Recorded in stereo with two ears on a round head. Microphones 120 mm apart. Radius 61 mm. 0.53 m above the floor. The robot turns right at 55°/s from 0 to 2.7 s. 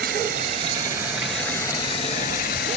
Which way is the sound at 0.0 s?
70° right.